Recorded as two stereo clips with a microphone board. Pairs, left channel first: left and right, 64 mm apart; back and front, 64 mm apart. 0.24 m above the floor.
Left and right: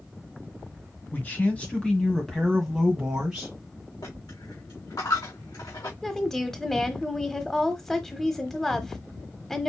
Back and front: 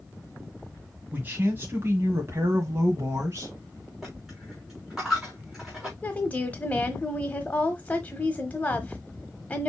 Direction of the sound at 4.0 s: 85° left.